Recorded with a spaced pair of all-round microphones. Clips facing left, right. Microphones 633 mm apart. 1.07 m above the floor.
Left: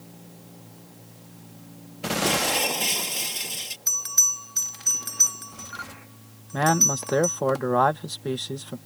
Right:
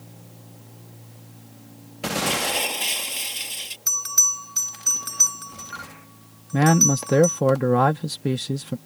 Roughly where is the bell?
Right.